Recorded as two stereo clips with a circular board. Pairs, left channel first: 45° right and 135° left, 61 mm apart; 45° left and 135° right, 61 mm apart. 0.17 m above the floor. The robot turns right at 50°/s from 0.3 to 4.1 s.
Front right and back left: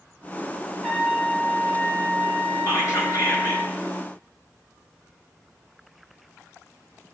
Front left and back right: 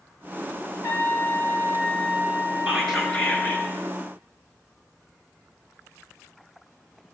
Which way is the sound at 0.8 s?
145° right.